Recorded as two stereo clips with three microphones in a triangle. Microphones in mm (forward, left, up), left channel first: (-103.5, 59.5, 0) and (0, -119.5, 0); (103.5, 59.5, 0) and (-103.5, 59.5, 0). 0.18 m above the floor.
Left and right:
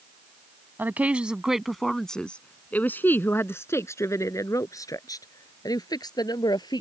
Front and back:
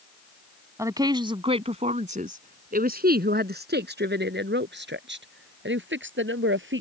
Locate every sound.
0.8 s a woman speaking: 125° right; by 6.8 s 170° right